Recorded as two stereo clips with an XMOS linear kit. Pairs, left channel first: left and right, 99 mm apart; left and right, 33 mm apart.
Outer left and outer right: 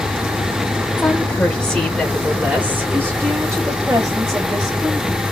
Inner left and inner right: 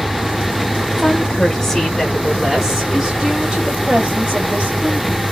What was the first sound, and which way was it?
A woman speaking, 20° left (ahead or behind).